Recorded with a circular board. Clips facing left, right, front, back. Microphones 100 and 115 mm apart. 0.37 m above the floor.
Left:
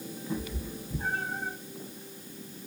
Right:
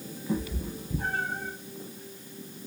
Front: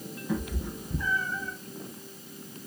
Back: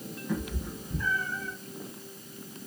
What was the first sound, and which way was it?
A cat meowing, 80° right.